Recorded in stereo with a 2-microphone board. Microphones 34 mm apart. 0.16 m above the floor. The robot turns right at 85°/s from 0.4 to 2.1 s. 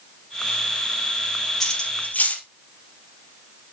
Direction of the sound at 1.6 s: 10° left (ahead or behind).